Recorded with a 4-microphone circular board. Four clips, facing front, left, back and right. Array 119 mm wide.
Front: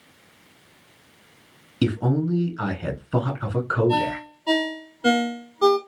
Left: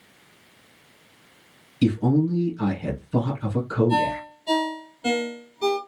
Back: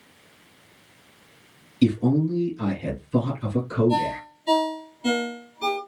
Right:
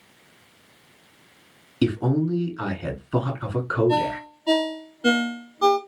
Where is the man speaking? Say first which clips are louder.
Left 2 dB, back 3 dB; 45° right, 3 m.